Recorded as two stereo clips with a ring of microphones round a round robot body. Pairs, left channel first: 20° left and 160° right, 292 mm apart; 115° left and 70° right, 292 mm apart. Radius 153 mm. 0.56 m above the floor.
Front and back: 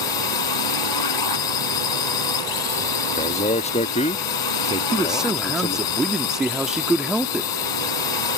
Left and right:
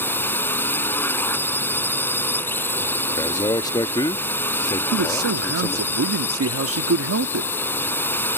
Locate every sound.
0.0 s a drone: 30° left
3.2 s a man speaking: 55° left
4.9 s a man speaking: 70° right